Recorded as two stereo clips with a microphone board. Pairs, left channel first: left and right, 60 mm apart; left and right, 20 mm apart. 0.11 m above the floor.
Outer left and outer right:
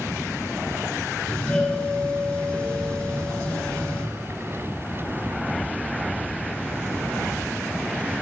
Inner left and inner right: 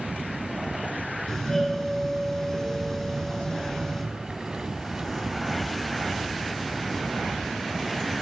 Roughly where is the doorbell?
Centre.